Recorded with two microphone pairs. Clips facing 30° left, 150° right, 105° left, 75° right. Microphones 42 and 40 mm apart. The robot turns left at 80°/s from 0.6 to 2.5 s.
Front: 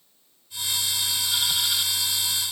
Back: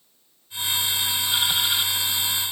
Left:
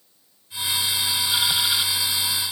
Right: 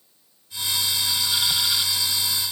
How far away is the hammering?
No hammering in this recording.